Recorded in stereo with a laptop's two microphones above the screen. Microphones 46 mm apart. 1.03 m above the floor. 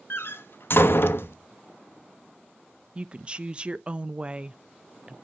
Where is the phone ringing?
I don't hear a phone ringing.